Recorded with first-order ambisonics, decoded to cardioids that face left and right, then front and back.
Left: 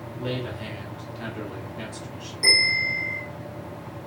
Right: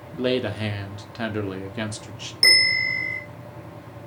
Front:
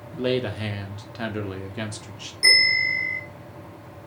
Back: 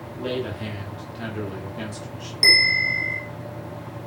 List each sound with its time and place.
0.1 s a man speaking: 65° right, 0.7 m
2.4 s a bell: 130° right, 1.2 m